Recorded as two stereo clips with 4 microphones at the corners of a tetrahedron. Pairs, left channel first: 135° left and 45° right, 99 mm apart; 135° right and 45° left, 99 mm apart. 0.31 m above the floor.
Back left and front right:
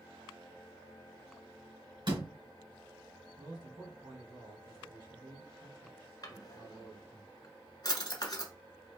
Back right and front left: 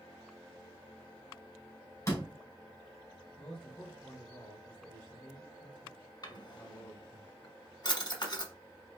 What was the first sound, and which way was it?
A door slam, 75° right.